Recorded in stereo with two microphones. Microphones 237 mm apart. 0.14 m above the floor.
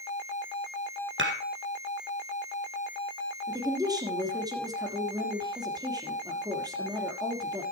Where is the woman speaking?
15° right (ahead or behind), 3 m.